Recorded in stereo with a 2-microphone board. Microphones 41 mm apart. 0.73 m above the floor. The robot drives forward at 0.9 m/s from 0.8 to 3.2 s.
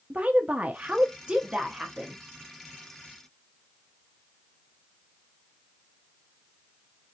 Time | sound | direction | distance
0.1 | a woman speaking | 30° right (ahead or behind) | 0.6 m